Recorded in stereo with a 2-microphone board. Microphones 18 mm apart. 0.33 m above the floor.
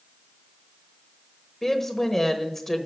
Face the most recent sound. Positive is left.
turn(degrees=20)  # may be behind; listen again after turning